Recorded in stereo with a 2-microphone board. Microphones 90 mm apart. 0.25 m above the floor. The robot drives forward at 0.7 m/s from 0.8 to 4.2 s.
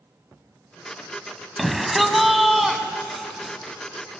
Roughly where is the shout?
Centre.